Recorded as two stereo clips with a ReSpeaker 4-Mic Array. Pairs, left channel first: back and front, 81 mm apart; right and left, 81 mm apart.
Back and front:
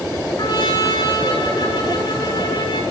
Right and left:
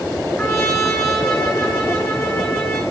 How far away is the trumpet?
About 7.5 m.